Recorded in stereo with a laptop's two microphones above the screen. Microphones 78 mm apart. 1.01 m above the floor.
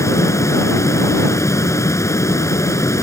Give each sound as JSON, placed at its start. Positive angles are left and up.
{"t": 0.0, "sound": "a fan", "side_deg": 40}